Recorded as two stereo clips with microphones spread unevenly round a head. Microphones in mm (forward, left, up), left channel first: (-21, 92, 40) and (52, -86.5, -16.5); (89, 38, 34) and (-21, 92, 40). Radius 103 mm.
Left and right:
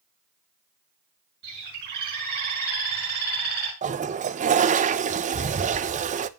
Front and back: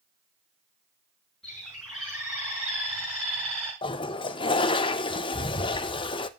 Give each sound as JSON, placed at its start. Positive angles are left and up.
{"t": 1.4, "sound": "a bird", "azimuth_deg": -115, "distance_m": 6.0}
{"t": 3.8, "sound": "a toilet flushing", "azimuth_deg": -60, "distance_m": 0.7}